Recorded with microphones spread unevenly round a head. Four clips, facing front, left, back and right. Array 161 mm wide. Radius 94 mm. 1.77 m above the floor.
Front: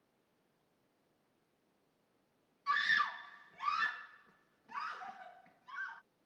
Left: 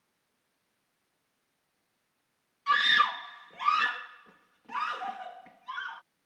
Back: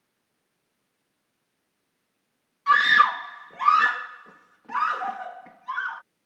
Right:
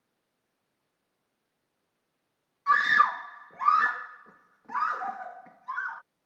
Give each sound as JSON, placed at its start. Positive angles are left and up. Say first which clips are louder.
{"t": 2.7, "sound": "a scream", "louder": "right 3 dB, back 16 dB", "azimuth_deg": -175}